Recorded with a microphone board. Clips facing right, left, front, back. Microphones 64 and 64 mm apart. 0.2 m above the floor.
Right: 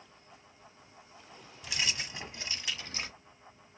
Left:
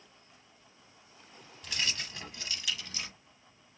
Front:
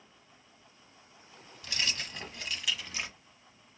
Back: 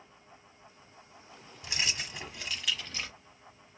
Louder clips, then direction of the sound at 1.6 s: Right 1 dB, even; 155° right.